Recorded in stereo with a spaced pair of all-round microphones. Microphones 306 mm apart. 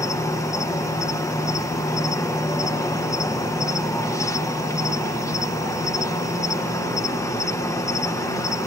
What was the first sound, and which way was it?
An insect, 10° left (ahead or behind).